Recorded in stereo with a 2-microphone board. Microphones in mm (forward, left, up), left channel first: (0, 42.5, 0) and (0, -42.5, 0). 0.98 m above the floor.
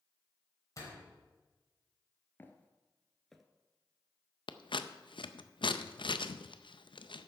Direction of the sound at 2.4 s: 25° left (ahead or behind).